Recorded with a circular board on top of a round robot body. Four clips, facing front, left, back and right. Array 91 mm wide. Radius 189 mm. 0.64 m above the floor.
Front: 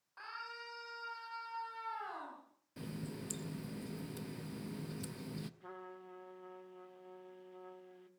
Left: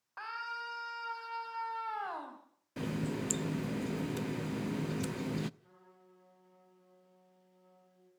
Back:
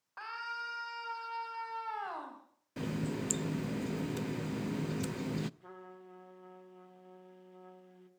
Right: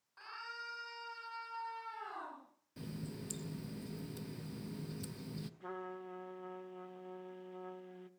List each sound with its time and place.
0.2 s a scream: 125° left, 5 m
2.8 s a running tap: 125° left, 0.7 m
5.6 s a trumpet: 85° right, 1.5 m